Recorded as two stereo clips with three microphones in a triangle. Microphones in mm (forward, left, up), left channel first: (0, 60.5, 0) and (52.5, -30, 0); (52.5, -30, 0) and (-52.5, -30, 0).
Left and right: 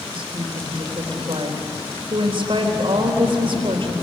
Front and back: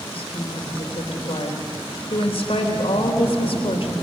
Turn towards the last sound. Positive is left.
turn(degrees=-25)